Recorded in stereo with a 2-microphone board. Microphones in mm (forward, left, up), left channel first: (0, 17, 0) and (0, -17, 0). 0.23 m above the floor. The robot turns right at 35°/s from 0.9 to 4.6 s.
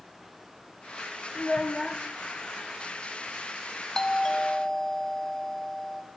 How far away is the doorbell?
About 1.4 m.